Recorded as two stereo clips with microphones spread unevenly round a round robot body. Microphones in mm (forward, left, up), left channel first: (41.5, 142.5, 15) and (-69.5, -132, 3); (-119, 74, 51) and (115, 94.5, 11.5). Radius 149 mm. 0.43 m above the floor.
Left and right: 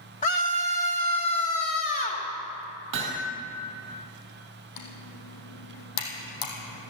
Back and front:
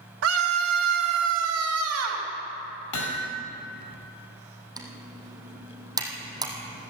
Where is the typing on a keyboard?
80° left, 3.5 m.